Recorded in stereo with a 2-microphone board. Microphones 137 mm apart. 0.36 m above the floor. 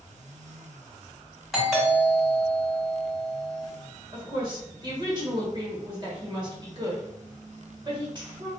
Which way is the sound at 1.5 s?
Centre (ahead or behind).